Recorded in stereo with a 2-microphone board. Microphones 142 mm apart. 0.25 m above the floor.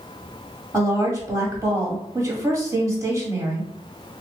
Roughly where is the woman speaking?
Right.